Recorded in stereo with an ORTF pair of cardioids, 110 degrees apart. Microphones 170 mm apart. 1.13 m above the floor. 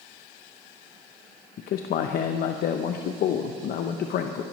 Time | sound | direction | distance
1.6 | a man speaking | 60° left | 0.8 m